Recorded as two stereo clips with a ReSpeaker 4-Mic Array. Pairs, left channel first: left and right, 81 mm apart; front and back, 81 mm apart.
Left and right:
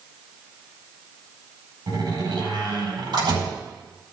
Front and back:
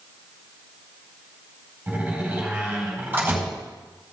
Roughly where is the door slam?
Behind right.